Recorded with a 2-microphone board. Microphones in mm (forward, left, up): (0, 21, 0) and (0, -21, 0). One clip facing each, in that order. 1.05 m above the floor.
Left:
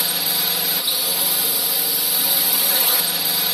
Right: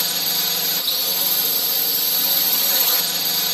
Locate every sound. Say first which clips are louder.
0.0 s a drone: left 1 dB; 10° left (ahead or behind)